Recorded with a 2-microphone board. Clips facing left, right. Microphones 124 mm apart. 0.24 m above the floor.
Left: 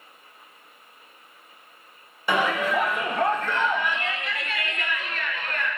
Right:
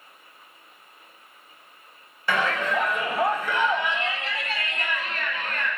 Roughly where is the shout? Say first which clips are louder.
Left 2 dB; centre.